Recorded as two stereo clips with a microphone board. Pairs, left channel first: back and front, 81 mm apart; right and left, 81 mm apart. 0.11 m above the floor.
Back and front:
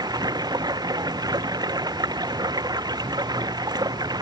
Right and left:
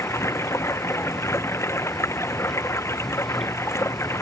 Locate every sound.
0.0 s running water: 35° right